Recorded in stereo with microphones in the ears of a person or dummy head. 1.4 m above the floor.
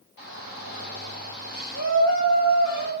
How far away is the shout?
About 5.5 m.